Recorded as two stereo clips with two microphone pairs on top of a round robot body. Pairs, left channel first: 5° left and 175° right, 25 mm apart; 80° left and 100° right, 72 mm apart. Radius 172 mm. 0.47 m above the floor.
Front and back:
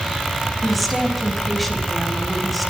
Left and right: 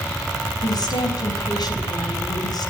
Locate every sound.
0.6 s a woman speaking: 95° left, 4.5 m